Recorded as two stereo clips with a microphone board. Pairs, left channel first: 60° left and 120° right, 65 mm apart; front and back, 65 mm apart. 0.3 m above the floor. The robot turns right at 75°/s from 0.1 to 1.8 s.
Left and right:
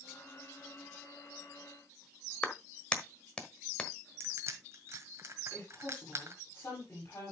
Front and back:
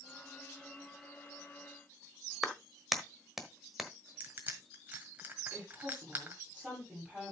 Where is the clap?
100° left, 1.3 m.